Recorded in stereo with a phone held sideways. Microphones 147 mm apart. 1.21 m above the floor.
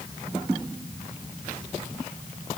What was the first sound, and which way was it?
Only background noise.